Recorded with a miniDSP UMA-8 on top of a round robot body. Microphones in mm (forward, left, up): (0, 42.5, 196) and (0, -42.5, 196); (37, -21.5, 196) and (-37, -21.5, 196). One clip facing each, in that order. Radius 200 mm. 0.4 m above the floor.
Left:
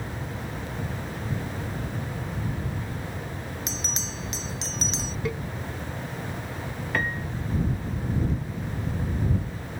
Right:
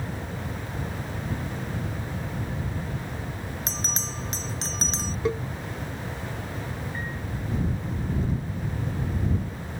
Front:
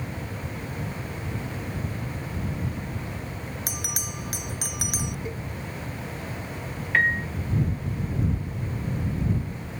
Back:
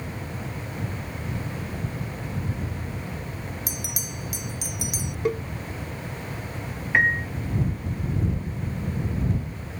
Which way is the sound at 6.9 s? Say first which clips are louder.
Left 6 dB, back 1 dB; 105° left.